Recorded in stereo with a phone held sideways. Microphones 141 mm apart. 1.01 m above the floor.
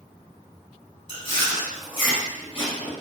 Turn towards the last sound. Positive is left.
turn(degrees=40)  # may be behind; listen again after turning